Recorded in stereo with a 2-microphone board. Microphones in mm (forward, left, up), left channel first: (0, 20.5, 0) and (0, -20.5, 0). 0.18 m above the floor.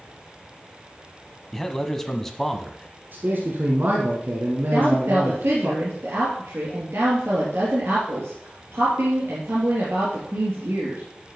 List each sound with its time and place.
1.5 s a man speaking: 5° left (ahead or behind), 1.1 m
3.1 s a man speaking: 55° right (ahead or behind), 1.9 m
4.7 s a woman speaking: 70° right (ahead or behind), 3.5 m